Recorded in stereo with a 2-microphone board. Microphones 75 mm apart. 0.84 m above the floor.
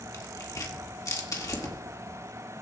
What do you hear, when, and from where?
0.1 s tearing paper: 45° left (ahead or behind), 1.7 m